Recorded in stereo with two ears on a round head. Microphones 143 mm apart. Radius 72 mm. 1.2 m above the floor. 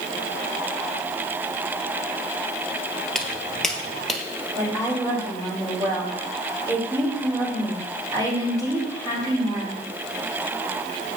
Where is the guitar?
I don't hear a guitar.